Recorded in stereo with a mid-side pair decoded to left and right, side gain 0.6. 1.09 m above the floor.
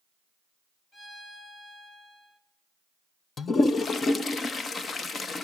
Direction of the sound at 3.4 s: 30° left.